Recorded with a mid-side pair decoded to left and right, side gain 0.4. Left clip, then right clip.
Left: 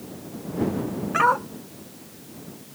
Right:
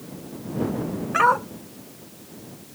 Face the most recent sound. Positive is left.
turn(degrees=-15)